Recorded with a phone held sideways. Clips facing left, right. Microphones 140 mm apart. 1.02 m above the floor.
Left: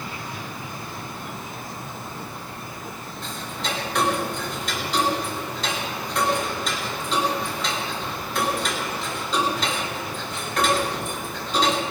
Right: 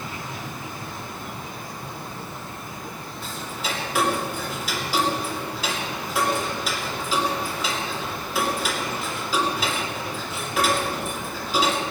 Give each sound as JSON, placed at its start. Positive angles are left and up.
{"t": 3.2, "sound": "ticking", "side_deg": -5, "distance_m": 2.5}